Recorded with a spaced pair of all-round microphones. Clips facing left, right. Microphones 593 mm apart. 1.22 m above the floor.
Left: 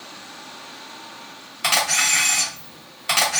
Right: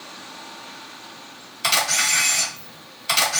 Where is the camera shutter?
65° left (ahead or behind), 2.5 m.